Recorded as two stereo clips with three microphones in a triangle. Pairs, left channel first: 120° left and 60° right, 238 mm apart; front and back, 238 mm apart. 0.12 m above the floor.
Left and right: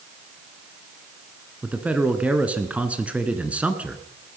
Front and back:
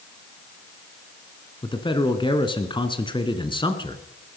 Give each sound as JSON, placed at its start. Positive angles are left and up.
{"t": 1.6, "sound": "a man speaking", "azimuth_deg": 15, "distance_m": 1.3}